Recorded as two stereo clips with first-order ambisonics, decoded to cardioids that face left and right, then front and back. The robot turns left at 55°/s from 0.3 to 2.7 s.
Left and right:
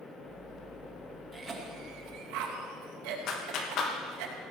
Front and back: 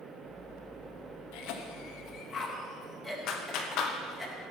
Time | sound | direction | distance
1.3 | a cough | 10° right | 2.5 m
3.3 | a clap | 45° left | 1.6 m